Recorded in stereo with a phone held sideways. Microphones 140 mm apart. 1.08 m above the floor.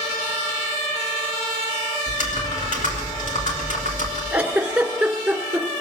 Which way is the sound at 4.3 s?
5° right (ahead or behind).